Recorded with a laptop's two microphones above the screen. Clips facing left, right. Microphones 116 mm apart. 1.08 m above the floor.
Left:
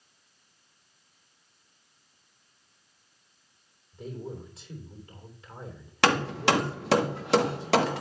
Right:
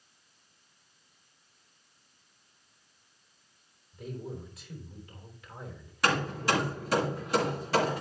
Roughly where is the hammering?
Left.